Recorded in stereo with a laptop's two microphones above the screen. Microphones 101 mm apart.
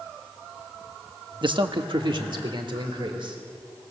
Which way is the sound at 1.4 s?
50° right (ahead or behind).